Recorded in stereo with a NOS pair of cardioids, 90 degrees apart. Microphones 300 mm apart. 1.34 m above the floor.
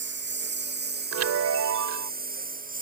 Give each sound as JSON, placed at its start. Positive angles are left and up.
{"t": 0.0, "sound": "a lawn mower", "azimuth_deg": -35}
{"t": 1.1, "sound": "a chime", "azimuth_deg": -60}